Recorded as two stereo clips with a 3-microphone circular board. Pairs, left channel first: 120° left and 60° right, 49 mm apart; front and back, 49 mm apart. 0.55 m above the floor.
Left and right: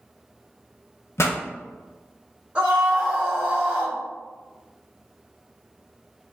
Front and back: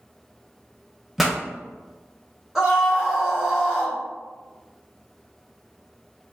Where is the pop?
95° left, 0.6 m.